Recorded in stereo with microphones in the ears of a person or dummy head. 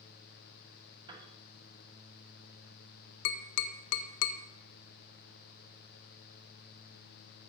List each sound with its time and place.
1.1 s a piano: 25° right (ahead or behind), 1.6 m
3.2 s tapping: 60° left (ahead or behind), 0.7 m